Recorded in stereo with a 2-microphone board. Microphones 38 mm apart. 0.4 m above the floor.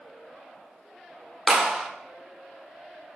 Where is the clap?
5° right (ahead or behind), 0.7 m.